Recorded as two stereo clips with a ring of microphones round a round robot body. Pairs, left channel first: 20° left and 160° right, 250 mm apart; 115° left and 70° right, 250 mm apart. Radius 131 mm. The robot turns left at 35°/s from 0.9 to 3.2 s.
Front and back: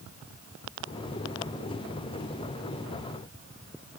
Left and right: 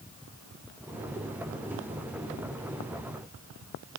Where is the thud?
I don't hear a thud.